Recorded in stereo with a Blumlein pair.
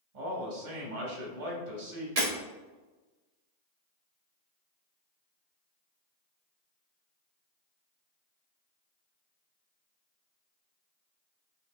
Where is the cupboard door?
I don't hear a cupboard door.